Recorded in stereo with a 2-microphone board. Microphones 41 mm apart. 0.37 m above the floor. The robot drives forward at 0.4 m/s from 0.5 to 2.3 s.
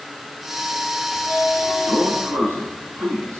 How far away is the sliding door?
About 2.5 m.